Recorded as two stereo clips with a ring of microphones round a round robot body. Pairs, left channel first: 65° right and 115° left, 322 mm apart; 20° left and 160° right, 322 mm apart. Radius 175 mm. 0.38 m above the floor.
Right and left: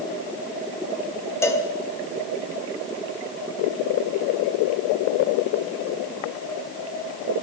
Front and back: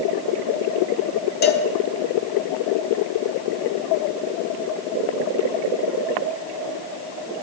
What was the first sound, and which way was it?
A cowbell, 5° left.